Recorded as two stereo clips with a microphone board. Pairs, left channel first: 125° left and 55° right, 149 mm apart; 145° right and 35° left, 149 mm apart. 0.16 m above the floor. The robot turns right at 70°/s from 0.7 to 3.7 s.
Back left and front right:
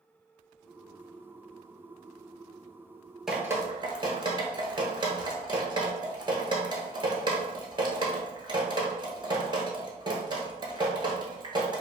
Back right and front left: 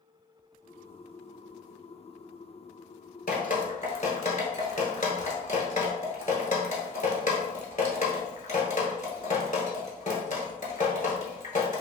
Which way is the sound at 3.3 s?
145° right.